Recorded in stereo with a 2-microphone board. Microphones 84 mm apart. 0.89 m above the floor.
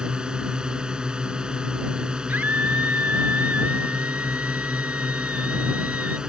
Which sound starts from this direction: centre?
A drone, at 0.0 s.